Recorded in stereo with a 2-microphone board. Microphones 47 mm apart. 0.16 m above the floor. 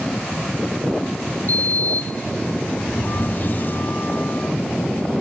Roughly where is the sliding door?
Left.